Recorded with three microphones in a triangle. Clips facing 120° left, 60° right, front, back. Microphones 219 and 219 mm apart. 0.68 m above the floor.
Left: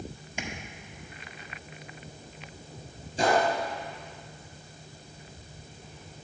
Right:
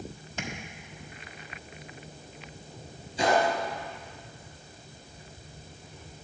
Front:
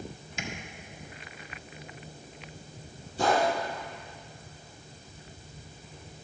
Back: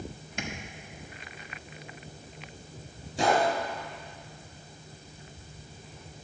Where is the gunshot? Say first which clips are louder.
Even, back 1 dB; 165° left, 4 m.